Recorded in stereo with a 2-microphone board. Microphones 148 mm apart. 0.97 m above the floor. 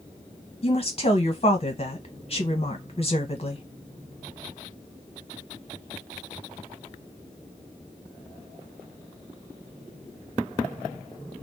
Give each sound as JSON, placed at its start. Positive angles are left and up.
{"t": 0.6, "sound": "a woman speaking", "side_deg": 40, "distance_m": 1.0}